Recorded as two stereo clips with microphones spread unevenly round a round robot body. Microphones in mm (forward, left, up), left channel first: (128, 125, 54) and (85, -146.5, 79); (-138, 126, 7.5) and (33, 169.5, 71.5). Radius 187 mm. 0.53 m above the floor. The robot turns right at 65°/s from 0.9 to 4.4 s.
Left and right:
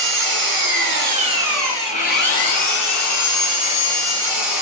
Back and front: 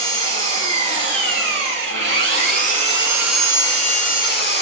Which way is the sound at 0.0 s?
55° right.